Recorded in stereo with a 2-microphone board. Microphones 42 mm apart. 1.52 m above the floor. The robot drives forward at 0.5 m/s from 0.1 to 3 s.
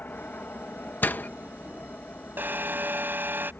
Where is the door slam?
45° left (ahead or behind); by 1.3 s 50° left (ahead or behind).